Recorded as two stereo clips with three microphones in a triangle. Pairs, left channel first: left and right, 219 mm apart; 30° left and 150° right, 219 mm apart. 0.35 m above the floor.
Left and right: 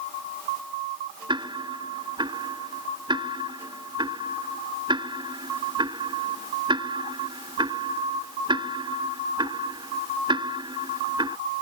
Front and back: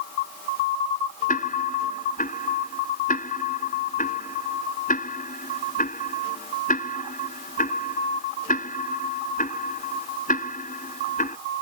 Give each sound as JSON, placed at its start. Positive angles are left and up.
{"t": 1.3, "sound": "ticking", "azimuth_deg": -20}